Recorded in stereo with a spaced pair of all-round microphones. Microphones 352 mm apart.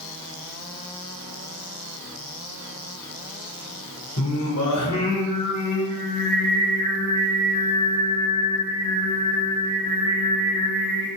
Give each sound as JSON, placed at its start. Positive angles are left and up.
{"t": 4.2, "sound": "singing", "side_deg": 50, "distance_m": 1.7}